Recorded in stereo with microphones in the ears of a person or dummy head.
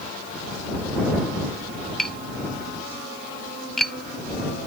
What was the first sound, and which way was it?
Tapping, 5° left (ahead or behind).